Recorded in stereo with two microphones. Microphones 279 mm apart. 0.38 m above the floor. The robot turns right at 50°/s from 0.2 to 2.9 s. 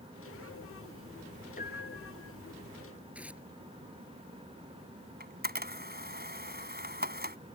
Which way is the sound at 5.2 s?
35° right (ahead or behind).